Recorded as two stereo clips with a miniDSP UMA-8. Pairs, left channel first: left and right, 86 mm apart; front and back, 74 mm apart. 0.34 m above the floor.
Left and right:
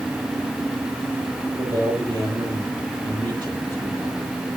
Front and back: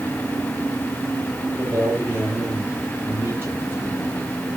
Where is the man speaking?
120° right, 8.5 m.